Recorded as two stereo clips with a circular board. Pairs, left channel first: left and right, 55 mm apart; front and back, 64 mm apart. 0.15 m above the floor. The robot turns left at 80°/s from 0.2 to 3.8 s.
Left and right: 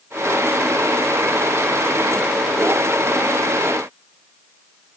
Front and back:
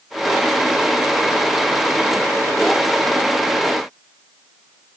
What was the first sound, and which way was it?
Only background noise.